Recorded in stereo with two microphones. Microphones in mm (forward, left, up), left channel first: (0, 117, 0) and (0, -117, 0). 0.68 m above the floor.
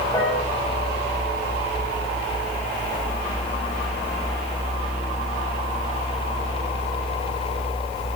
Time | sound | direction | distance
0.1 | a piano | 20° left (ahead or behind) | 10 m